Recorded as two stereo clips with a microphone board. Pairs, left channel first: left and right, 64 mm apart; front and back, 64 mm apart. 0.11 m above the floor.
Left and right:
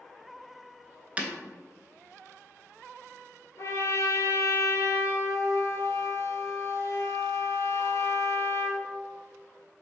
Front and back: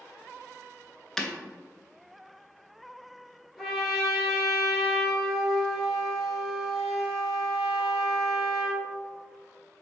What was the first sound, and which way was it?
Breaking glass, 70° right.